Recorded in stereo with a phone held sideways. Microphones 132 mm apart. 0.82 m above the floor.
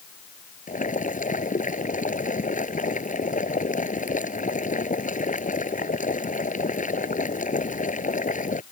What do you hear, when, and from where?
0.7 s boiling: 85° left